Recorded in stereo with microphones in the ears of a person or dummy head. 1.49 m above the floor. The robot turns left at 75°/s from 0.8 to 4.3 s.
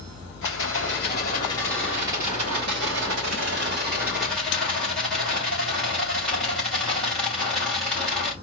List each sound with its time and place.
0.4 s a rattle: 75° left, 3 m; by 8.3 s 175° left, 3 m